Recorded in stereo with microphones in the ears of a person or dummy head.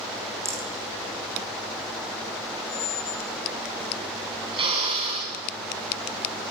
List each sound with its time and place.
0.5 s a rattle: 15° right (ahead or behind), 2.5 m
2.7 s a squeak: 25° left (ahead or behind), 0.9 m
4.5 s a drill: 25° right (ahead or behind), 7 m